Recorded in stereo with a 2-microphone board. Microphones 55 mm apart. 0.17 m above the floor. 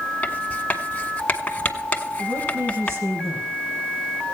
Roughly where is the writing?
Left.